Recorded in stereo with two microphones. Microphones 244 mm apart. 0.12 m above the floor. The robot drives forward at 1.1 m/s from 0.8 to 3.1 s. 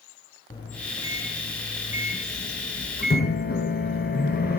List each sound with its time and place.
0.5 s a microwave: 20° left (ahead or behind), 3.5 m; by 4.6 s 40° left (ahead or behind), 1.9 m